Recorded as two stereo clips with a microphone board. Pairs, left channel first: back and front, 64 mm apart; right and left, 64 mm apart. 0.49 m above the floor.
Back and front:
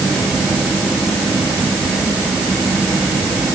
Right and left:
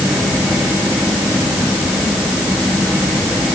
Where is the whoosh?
No whoosh in this recording.